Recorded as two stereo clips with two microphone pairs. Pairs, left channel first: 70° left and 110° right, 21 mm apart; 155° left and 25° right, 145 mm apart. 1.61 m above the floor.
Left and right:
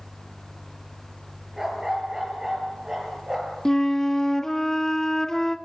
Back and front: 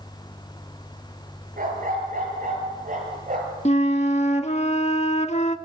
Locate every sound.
1.6 s a dog barking: 40° right, 8 m; by 3.5 s 45° right, 9 m
3.6 s a flute: 130° left, 1.4 m